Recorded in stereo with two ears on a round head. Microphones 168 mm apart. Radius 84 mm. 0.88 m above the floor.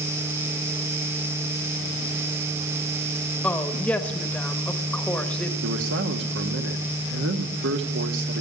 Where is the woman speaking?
5° left (ahead or behind), 1.1 m.